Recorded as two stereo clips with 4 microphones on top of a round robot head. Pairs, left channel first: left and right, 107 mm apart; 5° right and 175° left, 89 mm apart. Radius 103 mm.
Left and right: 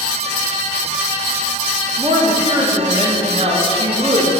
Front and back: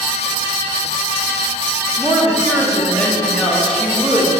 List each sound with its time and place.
2.0 s a woman speaking: 90° right, 1.3 m